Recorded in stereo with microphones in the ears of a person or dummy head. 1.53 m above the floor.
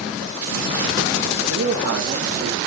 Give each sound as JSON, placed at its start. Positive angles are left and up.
{"t": 1.5, "sound": "a man speaking", "side_deg": -70, "distance_m": 1.7}